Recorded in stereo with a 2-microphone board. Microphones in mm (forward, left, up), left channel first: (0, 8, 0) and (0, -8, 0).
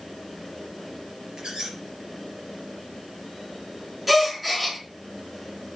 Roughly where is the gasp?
Centre.